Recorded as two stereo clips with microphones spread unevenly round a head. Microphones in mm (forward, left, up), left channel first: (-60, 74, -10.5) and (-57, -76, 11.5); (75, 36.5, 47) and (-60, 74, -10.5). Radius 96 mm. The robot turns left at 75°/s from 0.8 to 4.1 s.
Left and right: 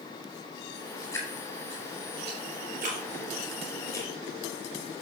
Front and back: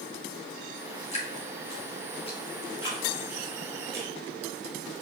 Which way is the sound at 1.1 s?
20° left.